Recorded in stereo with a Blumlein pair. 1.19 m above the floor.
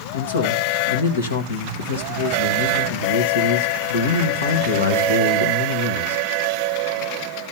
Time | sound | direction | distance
0.1 | a man speaking | 65° left | 1.8 m